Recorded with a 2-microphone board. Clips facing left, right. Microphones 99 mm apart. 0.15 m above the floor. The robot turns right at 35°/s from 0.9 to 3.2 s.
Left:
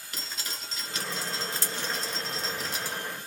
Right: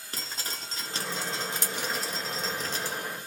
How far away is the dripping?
About 1.3 m.